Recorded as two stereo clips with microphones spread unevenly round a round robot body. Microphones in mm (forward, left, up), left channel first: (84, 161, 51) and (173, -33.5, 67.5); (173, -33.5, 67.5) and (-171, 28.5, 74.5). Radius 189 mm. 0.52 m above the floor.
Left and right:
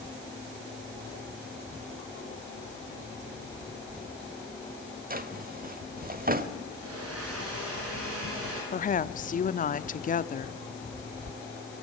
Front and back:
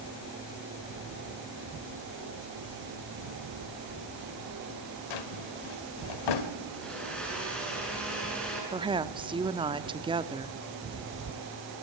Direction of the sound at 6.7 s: 95° right.